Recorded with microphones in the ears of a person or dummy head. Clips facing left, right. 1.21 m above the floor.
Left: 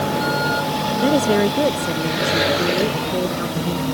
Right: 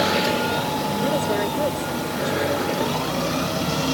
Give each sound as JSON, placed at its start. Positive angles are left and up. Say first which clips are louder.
{"t": 1.0, "sound": "a woman speaking", "louder": "left 8 dB", "side_deg": 45}